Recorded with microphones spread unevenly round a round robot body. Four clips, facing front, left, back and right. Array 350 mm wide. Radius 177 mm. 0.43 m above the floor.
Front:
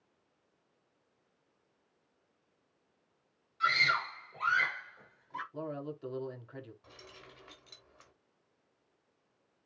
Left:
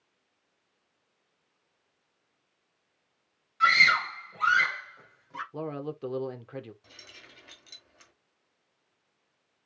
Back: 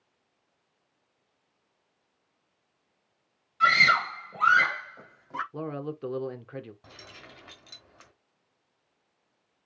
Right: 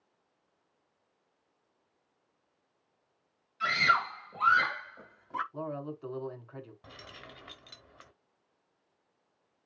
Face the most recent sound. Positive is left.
turn(degrees=-135)